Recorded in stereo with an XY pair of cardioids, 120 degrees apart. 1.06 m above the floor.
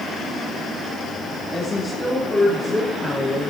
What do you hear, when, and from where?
1.5 s a woman speaking: 5° right, 4 m